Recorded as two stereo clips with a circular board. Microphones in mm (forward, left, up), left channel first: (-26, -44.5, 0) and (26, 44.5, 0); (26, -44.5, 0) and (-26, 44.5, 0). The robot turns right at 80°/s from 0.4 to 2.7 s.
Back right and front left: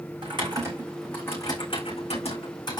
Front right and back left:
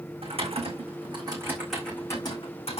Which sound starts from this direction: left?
Typing on a keyboard, at 0.2 s.